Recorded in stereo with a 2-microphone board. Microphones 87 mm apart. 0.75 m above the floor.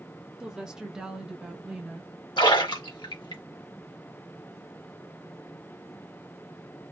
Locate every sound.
0.4 s a woman speaking: 10° right (ahead or behind), 1.0 m; by 2.1 s 5° right (ahead or behind), 0.7 m
2.4 s a splash: 65° left (ahead or behind), 1.2 m